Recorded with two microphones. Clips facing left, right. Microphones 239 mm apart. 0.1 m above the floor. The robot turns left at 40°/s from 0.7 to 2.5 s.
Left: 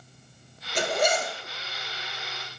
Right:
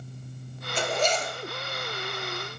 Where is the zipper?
20° left (ahead or behind), 0.6 m; by 1.4 s centre (ahead or behind), 0.6 m.